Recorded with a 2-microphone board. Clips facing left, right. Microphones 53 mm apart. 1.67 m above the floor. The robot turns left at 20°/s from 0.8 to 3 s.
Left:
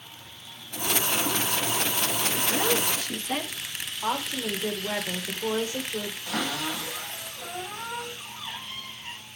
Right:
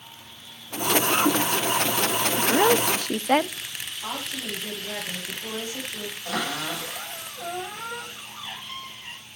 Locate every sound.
2.4 s a woman speaking: 50° right (ahead or behind), 0.7 m; by 3.6 s 60° right (ahead or behind), 0.7 m
4.0 s a woman speaking: 35° left (ahead or behind), 1.8 m
6.2 s a cupboard door: 55° right (ahead or behind), 9.5 m